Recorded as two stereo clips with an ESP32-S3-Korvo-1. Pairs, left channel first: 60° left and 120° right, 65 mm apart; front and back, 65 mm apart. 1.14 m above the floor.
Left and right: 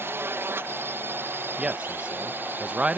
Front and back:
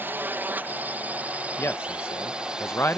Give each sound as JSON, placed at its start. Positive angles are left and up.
{"t": 0.0, "sound": "a drone", "azimuth_deg": -140}
{"t": 1.6, "sound": "a man speaking", "azimuth_deg": -50}